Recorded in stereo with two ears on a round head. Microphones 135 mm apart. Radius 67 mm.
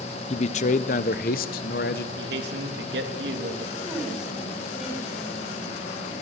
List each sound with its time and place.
0.3 s a man speaking: 40° left (ahead or behind), 0.8 m; by 2.0 s 70° left (ahead or behind), 1.7 m
2.1 s a man speaking: 80° right, 3 m
3.8 s a woman speaking: 5° right (ahead or behind), 8 m